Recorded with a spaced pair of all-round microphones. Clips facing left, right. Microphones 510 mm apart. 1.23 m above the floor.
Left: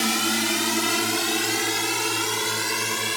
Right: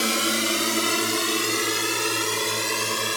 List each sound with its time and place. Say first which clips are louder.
0.0 s a drone: even; 15° left (ahead or behind); by 3.2 s 5° left (ahead or behind)